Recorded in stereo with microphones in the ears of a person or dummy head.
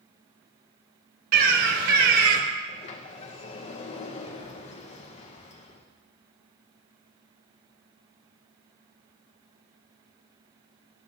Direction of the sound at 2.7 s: 35° left (ahead or behind).